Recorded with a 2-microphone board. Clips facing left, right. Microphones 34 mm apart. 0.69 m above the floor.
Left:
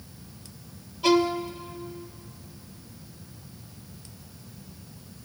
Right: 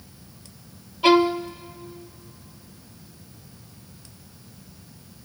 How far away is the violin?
About 0.5 m.